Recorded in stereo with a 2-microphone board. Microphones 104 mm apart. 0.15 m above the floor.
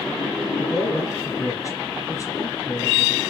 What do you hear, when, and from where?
0.6 s a man speaking: 30° left (ahead or behind), 3 m